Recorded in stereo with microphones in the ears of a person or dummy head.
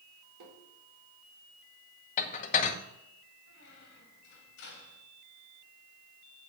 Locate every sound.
0.4 s tapping: 75° right (ahead or behind), 4 m
2.2 s dishes clattering: 40° left (ahead or behind), 1.0 m
3.5 s a squeak: 60° left (ahead or behind), 2 m